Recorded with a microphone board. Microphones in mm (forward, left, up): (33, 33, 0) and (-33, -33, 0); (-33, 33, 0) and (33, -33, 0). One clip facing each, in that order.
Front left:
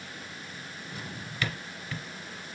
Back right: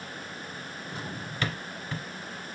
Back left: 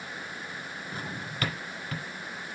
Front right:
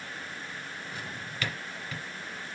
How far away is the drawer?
About 1.0 m.